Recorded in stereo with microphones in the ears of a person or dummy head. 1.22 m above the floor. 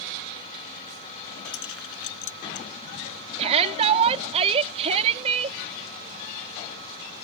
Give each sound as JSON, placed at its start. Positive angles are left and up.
{"t": 1.4, "sound": "keys jangling", "side_deg": 75}
{"t": 3.4, "sound": "a shout", "side_deg": -30}